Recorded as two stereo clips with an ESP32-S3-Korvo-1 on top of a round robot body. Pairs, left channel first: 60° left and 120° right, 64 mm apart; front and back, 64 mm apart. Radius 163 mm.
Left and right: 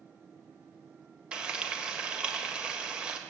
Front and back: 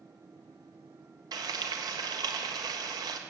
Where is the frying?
165° left, 1.7 m.